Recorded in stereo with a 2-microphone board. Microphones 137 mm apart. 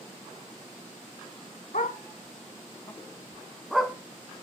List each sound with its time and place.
1.7 s a dog barking: 80° left, 0.8 m; by 4.0 s 5° right (ahead or behind), 1.0 m